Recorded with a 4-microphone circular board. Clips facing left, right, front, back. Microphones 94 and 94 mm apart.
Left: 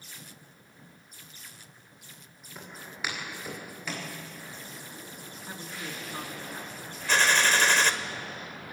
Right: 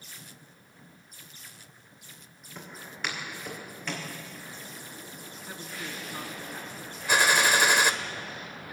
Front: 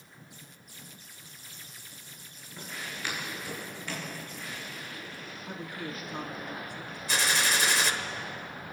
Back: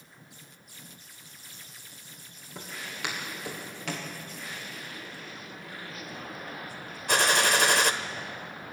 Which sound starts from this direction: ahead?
A woman speaking, at 5.5 s.